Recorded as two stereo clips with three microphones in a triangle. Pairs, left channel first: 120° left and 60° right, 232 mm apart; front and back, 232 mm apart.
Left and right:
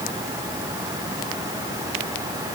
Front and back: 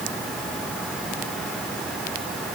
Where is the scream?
No scream in this recording.